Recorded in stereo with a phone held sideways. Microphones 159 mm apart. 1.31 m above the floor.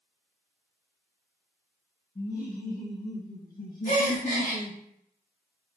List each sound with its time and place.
2.1 s laughter: 60° left (ahead or behind), 1.4 m; by 4.8 s 25° left (ahead or behind), 0.5 m
3.9 s a gasp: 65° left (ahead or behind), 2 m